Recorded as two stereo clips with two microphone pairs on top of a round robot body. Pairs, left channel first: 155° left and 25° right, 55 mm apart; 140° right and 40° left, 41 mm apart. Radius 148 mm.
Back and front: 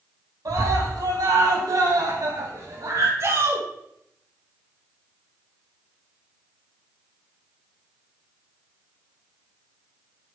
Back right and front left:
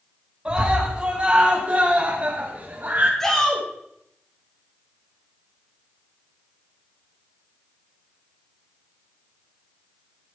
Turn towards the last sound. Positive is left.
turn(degrees=-60)